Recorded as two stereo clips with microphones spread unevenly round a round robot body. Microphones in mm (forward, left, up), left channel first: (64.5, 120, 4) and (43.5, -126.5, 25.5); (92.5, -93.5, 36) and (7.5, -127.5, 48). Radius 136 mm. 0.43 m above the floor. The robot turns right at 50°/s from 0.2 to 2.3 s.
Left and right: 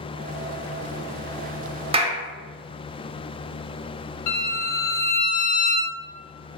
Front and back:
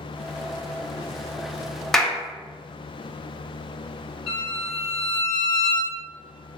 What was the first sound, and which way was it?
A clap, 45° right.